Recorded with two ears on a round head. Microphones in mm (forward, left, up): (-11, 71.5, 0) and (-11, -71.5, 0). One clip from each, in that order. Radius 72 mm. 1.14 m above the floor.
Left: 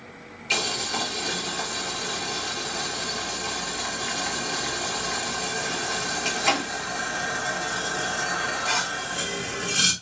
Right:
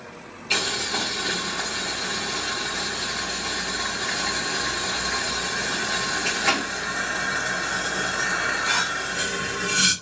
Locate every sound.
0.5 s boiling: 40° left (ahead or behind), 1.6 m